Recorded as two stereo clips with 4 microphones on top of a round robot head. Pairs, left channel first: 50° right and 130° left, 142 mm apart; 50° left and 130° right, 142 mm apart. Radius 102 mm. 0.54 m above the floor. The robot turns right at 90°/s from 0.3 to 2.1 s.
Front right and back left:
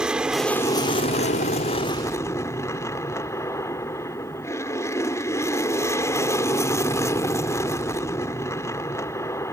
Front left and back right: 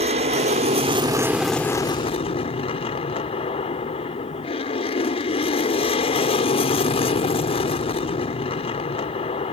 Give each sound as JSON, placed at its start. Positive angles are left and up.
{"t": 0.0, "sound": "an aircraft", "azimuth_deg": -145}